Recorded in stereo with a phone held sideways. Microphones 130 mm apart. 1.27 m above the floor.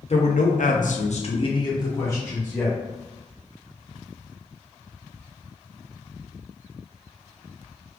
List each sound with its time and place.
0.1 s a man speaking: 55° left (ahead or behind), 0.8 m; by 2.8 s 15° left (ahead or behind), 1.6 m